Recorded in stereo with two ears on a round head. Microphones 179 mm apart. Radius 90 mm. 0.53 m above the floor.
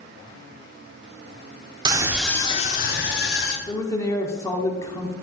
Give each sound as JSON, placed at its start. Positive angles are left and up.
{"t": 1.9, "sound": "a scream", "side_deg": -20, "distance_m": 1.1}
{"t": 3.7, "sound": "a man speaking", "side_deg": 15, "distance_m": 1.1}